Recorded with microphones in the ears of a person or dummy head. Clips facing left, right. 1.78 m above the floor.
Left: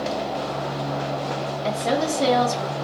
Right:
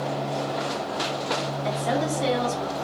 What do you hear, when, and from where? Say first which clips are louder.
1.6 s a woman speaking: left 3 dB; 65° left (ahead or behind), 1.4 m